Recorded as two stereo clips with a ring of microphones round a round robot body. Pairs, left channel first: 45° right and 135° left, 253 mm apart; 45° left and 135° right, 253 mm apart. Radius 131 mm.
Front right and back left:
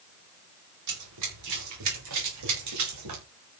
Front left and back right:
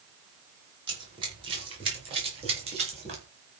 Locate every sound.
0.9 s running footsteps: 155° left, 9.5 m; by 3.2 s 160° left, 10 m